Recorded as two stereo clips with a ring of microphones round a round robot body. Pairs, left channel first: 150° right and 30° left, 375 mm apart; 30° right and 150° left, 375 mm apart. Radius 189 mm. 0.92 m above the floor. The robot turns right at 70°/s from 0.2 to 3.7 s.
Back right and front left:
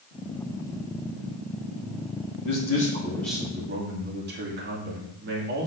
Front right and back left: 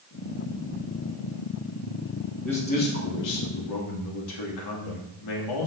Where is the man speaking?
120° right, 2 m; by 5.7 s 30° right, 2 m.